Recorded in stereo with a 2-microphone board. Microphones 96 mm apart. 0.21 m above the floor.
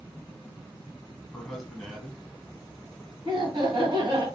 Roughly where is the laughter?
Right.